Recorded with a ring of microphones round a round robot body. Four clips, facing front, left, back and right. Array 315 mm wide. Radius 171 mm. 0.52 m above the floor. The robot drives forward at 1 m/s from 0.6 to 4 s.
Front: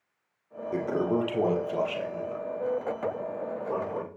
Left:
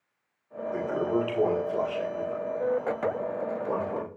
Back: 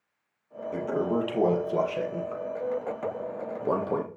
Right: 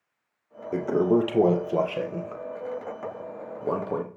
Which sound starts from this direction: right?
A toilet flushing, at 0.7 s.